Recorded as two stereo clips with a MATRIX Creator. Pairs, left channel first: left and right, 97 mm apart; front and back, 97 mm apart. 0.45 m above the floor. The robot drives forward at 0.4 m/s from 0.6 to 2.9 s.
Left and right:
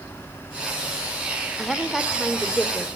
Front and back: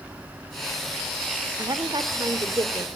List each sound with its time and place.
1.6 s a woman speaking: straight behind, 1.2 m